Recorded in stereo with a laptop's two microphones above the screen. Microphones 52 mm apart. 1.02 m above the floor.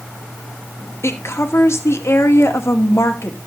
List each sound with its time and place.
1.0 s a woman speaking: 55° left (ahead or behind), 2.0 m